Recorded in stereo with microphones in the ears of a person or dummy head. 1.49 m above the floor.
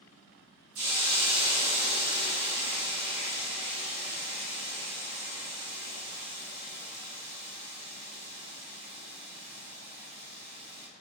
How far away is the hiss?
About 1.6 m.